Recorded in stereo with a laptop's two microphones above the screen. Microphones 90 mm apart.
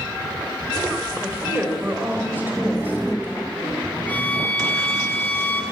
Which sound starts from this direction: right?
A woman speaking, at 1.2 s.